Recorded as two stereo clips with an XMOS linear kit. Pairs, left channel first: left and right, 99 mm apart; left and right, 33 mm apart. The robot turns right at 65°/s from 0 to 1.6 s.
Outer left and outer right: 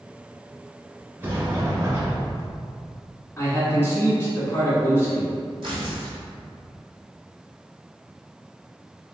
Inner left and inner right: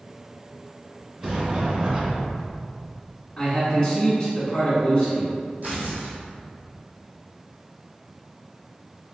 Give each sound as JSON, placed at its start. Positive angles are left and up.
{"t": 1.2, "sound": "a sliding door", "side_deg": -20, "distance_m": 1.6}
{"t": 3.4, "sound": "a man speaking", "side_deg": 25, "distance_m": 1.3}
{"t": 5.6, "sound": "tearing paper", "side_deg": -50, "distance_m": 1.4}